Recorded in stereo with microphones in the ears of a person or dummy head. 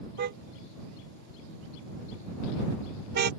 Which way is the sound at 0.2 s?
55° right (ahead or behind).